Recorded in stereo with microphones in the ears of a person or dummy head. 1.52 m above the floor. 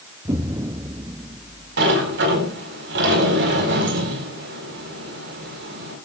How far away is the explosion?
About 0.6 m.